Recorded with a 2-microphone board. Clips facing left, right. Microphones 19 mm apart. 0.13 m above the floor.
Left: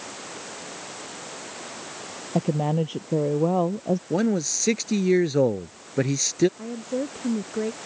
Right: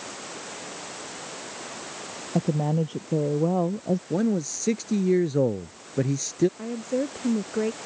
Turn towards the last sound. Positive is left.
turn(degrees=-10)  # may be behind; listen again after turning